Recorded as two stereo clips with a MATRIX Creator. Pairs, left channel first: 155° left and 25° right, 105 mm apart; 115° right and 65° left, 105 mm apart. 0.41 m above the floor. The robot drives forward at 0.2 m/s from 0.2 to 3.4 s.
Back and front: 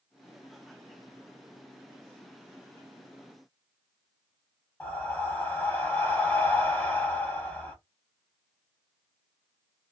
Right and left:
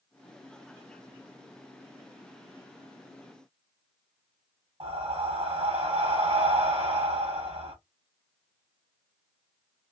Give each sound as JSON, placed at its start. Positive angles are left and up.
{"t": 4.8, "sound": "breathing", "azimuth_deg": 85, "distance_m": 1.4}